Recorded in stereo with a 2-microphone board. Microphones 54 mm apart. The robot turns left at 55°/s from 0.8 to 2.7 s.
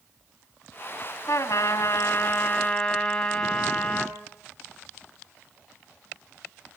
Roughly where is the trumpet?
Left.